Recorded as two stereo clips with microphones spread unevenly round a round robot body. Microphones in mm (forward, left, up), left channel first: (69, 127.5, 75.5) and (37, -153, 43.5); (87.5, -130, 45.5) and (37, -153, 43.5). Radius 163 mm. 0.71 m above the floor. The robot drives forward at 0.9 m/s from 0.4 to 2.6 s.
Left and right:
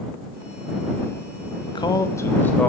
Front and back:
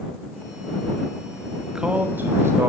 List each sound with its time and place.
1.6 s a man speaking: 140° left, 0.8 m; by 2.7 s 170° left, 1.3 m